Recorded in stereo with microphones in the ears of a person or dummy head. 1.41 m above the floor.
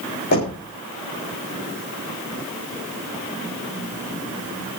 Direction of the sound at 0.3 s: 50° left (ahead or behind).